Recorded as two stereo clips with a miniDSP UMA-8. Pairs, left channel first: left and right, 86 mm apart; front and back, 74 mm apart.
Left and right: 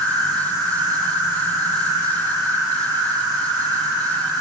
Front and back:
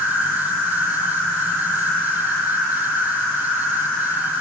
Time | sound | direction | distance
0.0 | an insect | 70° right | 1.1 m